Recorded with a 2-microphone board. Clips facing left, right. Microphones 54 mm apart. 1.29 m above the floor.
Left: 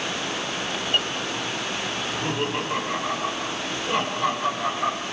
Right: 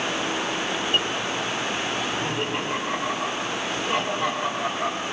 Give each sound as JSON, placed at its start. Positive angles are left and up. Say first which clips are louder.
{"t": 2.0, "sound": "laughter", "louder": "even", "side_deg": -15, "distance_m": 9.0}